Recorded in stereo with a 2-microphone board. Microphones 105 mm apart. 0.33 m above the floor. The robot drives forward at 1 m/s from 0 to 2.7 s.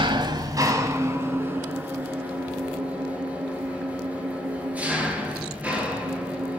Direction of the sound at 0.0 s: 50° right (ahead or behind).